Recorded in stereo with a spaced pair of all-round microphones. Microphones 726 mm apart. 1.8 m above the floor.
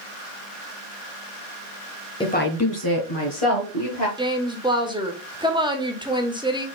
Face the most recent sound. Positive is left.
turn(degrees=-5)  # may be behind; listen again after turning